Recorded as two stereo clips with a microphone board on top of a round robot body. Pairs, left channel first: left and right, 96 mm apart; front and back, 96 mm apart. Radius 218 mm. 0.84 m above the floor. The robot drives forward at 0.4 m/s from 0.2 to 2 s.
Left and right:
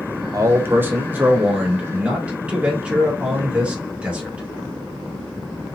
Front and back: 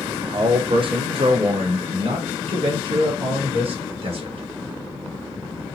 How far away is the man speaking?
About 0.5 m.